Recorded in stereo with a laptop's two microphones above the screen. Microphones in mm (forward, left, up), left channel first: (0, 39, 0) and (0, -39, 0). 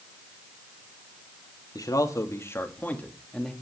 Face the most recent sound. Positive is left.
turn(degrees=0)  # may be behind; listen again after turning